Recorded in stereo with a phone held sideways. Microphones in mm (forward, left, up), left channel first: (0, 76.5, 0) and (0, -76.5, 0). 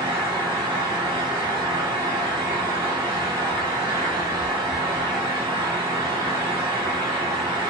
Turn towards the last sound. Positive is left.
turn(degrees=-30)  # may be behind; listen again after turning